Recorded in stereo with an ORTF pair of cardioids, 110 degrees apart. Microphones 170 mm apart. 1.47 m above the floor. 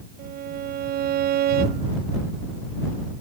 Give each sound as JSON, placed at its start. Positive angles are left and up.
{"t": 0.2, "sound": "a violin", "azimuth_deg": -65}